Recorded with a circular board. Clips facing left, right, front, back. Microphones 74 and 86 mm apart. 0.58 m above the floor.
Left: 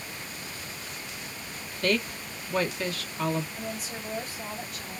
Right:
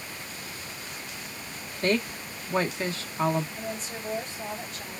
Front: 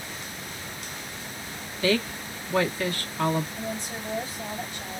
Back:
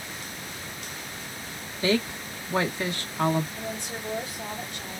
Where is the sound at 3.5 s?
170° left, 2.5 m.